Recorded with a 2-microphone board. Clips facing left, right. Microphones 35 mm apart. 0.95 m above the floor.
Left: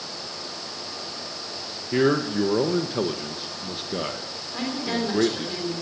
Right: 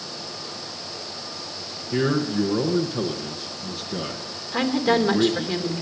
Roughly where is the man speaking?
Left.